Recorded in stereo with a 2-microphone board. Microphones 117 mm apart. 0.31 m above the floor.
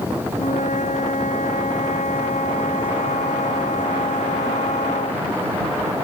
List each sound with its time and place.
0.3 s a flute: 85° left